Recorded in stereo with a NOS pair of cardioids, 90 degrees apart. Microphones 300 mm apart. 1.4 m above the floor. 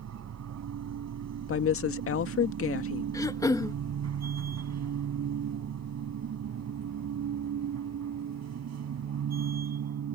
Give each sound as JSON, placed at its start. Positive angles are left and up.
{"t": 0.0, "sound": "a machine running", "azimuth_deg": -60}
{"t": 1.5, "sound": "a woman speaking", "azimuth_deg": 45}
{"t": 3.1, "sound": "throat clearing", "azimuth_deg": 10}